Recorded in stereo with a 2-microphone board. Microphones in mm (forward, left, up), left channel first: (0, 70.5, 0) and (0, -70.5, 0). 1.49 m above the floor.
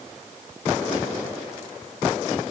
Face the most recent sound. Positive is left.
No sound to turn to.